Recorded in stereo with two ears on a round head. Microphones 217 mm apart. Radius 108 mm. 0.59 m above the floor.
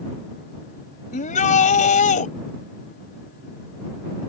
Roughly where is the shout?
Left.